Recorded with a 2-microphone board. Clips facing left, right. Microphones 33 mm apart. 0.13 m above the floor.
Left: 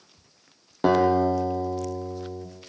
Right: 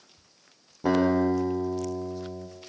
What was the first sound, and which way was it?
A guitar, 70° left (ahead or behind).